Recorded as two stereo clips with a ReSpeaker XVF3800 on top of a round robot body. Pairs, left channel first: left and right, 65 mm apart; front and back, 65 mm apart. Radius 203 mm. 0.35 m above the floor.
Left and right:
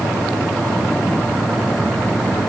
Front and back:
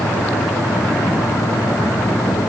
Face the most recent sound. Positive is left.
No sound to turn to.